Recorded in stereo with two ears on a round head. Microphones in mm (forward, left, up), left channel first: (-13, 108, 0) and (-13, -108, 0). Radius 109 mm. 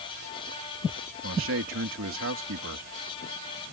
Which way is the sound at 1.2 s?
55° right (ahead or behind).